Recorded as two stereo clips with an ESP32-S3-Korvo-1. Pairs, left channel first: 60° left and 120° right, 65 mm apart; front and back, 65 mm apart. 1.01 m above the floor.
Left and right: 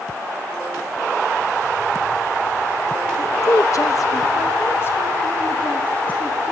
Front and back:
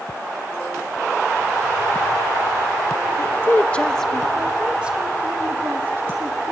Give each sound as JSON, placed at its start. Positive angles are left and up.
{"t": 3.2, "sound": "a woman speaking", "azimuth_deg": 40, "distance_m": 1.2}